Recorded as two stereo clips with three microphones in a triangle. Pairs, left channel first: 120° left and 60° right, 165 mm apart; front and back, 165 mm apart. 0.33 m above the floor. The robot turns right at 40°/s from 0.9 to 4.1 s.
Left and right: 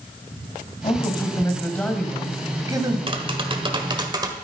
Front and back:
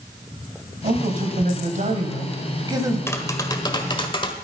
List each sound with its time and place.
0.8 s a man speaking: 165° left, 2 m; by 3.0 s 115° right, 2 m
3.1 s tapping: 60° right, 1.3 m; by 4.3 s 20° right, 1.3 m